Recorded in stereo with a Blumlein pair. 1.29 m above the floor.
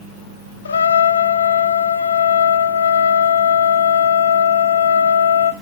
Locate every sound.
0.7 s a trumpet: 70° left, 0.8 m